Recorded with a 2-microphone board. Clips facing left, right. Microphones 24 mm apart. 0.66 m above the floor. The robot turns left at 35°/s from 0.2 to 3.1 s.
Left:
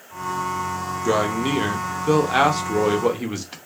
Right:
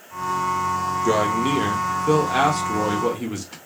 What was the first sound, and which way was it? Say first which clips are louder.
A man speaking: even; 165° left.